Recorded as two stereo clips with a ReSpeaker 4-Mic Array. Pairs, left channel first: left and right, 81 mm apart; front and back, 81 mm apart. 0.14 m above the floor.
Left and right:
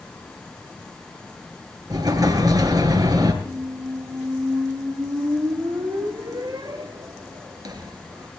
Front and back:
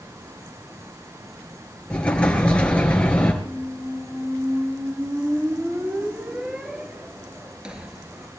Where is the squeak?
105° right, 1.2 m.